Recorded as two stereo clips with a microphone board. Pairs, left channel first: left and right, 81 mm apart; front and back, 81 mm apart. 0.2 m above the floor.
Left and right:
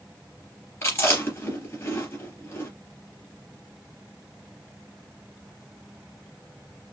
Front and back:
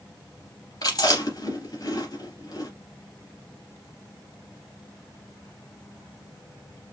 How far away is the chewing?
About 3 m.